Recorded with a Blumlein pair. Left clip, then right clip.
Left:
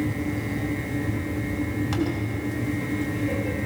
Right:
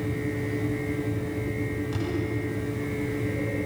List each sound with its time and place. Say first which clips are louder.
0.0 s a fan: left 2 dB; 60° left, 3.5 m